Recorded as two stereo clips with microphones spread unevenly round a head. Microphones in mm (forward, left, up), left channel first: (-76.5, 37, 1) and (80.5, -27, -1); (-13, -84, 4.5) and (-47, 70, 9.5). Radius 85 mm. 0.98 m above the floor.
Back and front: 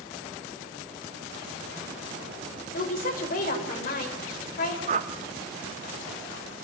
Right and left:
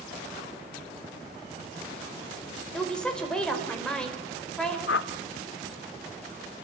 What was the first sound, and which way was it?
A woman speaking, 160° right.